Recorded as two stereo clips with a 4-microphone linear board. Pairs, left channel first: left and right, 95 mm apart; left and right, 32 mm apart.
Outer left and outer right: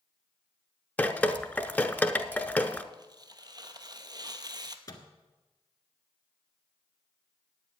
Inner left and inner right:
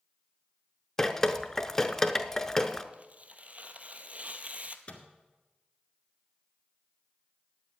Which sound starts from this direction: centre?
Dripping, at 1.0 s.